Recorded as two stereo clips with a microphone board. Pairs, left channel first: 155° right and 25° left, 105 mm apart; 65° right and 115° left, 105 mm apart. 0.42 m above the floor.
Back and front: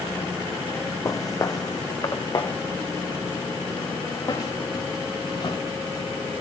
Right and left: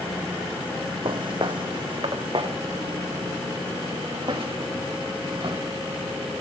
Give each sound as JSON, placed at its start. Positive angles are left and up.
{"t": 1.1, "sound": "footsteps", "azimuth_deg": 145, "distance_m": 1.1}